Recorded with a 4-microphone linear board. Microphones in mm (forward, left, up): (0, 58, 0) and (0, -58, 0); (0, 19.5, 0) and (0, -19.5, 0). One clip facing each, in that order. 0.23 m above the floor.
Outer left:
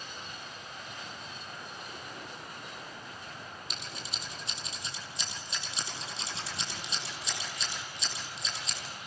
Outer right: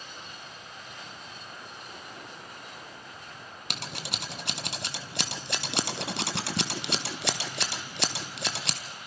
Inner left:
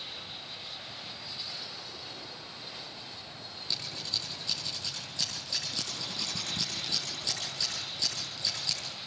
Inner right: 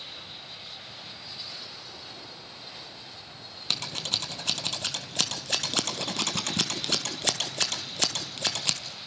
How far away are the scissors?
About 1.6 m.